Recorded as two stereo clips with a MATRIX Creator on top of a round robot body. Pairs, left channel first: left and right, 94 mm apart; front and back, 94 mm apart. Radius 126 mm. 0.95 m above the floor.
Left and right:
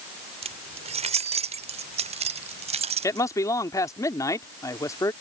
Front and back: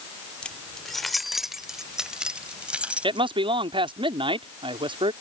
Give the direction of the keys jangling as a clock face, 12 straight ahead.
3 o'clock.